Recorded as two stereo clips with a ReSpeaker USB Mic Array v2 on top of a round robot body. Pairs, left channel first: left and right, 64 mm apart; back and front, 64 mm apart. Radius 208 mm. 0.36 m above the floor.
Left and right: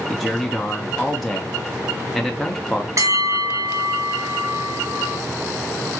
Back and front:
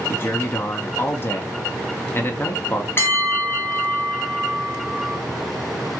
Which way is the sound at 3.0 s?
125° right.